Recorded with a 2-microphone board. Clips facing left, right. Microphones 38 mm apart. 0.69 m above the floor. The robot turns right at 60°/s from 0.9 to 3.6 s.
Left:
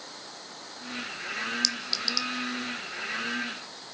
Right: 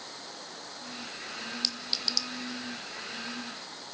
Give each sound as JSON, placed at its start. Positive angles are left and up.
{"t": 1.6, "sound": "a clink", "side_deg": -25, "distance_m": 0.8}